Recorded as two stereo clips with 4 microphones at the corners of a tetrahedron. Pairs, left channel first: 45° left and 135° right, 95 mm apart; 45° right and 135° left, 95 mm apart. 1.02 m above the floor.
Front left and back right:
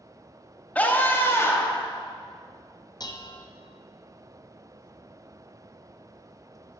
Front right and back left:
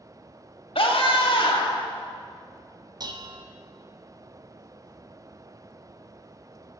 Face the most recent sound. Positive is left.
turn(degrees=90)